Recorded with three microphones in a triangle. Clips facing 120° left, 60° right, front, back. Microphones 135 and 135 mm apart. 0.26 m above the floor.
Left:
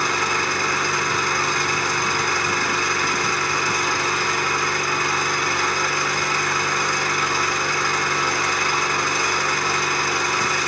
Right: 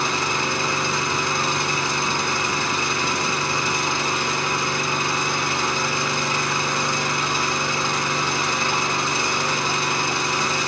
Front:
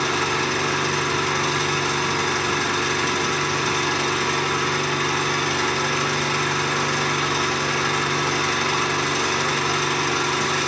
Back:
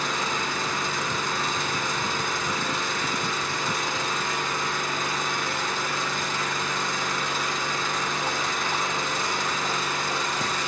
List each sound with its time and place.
0.0 s an engine running: 10° left, 2.5 m